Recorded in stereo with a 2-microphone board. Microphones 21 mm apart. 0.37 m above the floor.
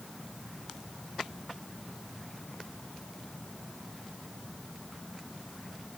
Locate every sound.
Only background noise.